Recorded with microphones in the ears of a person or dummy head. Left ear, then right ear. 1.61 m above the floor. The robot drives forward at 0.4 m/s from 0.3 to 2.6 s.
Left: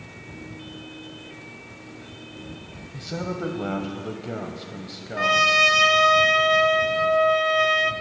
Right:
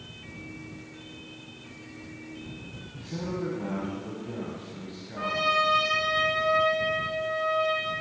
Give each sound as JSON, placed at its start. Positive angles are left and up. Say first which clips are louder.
{"t": 2.9, "sound": "a man speaking", "louder": "left 4 dB", "side_deg": 55, "distance_m": 0.7}
{"t": 5.2, "sound": "a trumpet", "louder": "left 8 dB", "side_deg": 70, "distance_m": 0.7}